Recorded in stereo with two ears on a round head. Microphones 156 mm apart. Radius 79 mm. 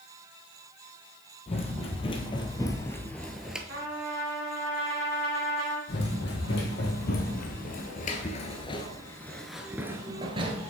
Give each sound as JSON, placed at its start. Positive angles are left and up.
{"t": 1.5, "sound": "running footsteps", "side_deg": 35, "distance_m": 1.7}
{"t": 3.7, "sound": "a trumpet", "side_deg": -55, "distance_m": 2.5}
{"t": 5.9, "sound": "running footsteps", "side_deg": 65, "distance_m": 2.5}